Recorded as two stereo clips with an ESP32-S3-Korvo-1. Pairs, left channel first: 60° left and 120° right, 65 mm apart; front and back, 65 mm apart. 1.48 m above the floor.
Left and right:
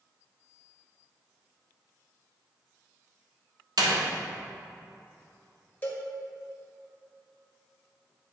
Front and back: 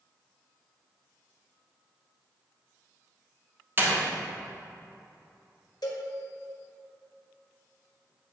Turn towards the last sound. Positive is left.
turn(degrees=-5)